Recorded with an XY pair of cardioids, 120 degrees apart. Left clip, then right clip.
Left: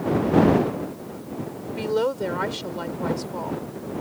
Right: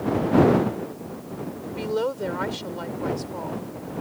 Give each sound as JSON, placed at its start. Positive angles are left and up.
{"t": 1.8, "sound": "a woman speaking", "azimuth_deg": 10}